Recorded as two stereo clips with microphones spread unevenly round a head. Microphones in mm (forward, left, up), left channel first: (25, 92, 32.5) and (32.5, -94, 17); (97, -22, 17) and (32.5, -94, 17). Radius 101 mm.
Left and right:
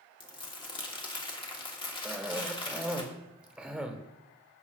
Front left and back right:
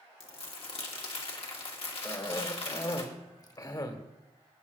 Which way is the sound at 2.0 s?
5° right.